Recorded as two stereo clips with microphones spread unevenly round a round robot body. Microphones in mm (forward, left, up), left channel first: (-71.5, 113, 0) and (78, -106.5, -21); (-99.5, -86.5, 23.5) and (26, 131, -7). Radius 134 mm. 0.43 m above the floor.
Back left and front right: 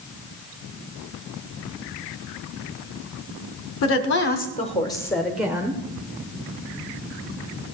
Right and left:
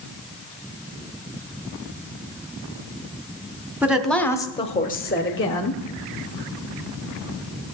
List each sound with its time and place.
3.8 s a woman speaking: 130° left, 1.2 m; by 5.8 s 125° right, 1.4 m